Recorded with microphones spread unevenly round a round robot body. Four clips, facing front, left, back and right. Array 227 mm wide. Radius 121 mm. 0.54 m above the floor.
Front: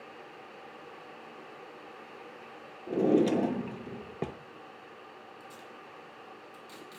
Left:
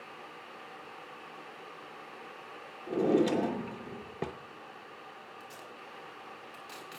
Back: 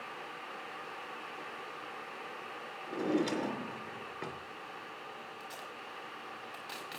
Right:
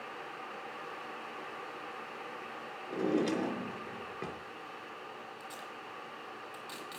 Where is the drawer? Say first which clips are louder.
Left 5 dB, front 7 dB; 30° left, 0.6 m.